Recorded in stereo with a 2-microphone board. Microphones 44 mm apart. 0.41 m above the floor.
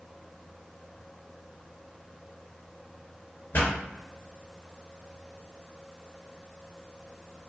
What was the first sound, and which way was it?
A pop, 40° left (ahead or behind).